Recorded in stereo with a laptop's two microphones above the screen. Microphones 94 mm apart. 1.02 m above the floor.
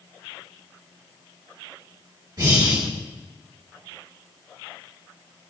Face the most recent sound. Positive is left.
turn(degrees=-50)  # may be behind; listen again after turning